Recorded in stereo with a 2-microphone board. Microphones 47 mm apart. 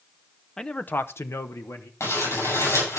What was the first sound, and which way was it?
A man speaking, 10° left (ahead or behind).